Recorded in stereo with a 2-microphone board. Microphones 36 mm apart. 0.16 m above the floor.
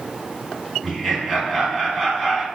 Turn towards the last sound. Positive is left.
turn(degrees=0)  # may be behind; listen again after turning